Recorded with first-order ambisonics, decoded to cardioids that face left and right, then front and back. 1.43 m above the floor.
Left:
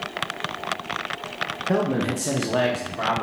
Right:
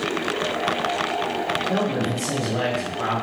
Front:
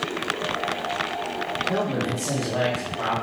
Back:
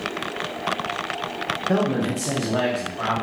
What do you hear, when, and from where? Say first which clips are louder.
1.7 s a man speaking: even, back 4 dB; 135° left, 0.6 m; by 3.2 s 90° left, 1.3 m